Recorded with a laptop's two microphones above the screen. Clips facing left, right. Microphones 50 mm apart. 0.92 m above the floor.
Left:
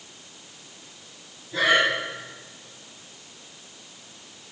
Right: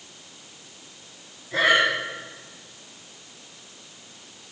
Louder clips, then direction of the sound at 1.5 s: Right 1 dB; 65° right (ahead or behind).